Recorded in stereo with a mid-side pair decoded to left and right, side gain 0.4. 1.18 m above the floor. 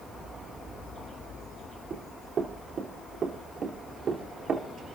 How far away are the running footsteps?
About 4 m.